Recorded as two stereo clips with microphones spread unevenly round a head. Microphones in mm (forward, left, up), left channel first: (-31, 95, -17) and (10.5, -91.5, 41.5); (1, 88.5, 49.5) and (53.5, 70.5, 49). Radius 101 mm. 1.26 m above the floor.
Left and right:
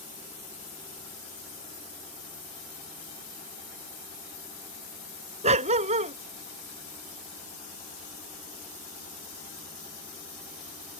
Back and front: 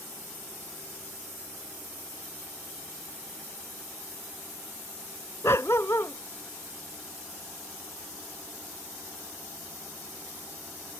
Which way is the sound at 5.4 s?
130° right.